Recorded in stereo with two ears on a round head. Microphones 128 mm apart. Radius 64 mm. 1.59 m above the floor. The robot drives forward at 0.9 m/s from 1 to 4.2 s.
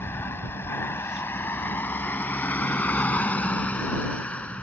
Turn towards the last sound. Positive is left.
turn(degrees=10)  # may be behind; listen again after turning